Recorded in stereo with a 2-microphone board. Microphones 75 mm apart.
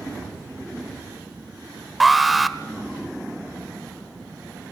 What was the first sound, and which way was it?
An alarm, centre (ahead or behind).